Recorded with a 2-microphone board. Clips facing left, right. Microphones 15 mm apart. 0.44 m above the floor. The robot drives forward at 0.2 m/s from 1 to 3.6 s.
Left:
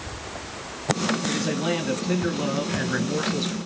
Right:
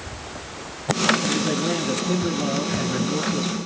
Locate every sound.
1.3 s a man speaking: 70° left (ahead or behind), 2.5 m; by 3.6 s 65° left (ahead or behind), 2.5 m